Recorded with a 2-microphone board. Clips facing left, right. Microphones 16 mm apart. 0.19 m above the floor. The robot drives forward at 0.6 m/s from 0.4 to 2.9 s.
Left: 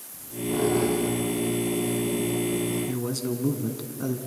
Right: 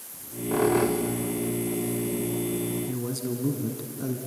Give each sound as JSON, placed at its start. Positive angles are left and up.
{"t": 0.1, "sound": "a squeak", "side_deg": -65, "distance_m": 3.0}
{"t": 2.9, "sound": "a man speaking", "side_deg": 20, "distance_m": 1.7}